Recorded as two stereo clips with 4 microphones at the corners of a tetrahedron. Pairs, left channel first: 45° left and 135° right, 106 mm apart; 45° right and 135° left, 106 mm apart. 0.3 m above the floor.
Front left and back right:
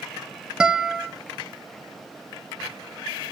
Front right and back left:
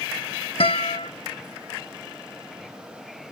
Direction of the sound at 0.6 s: 55° right.